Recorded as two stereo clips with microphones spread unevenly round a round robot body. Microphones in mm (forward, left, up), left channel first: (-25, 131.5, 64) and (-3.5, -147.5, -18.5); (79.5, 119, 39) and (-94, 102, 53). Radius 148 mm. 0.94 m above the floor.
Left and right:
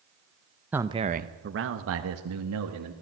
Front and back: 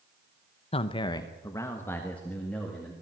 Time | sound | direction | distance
0.7 | a man speaking | 25° right | 0.7 m